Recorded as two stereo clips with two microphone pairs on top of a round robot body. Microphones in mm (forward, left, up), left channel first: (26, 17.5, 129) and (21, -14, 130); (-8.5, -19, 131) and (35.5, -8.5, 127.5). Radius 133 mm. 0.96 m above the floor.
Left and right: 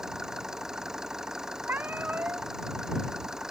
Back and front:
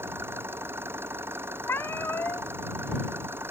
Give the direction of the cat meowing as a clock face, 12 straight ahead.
4 o'clock.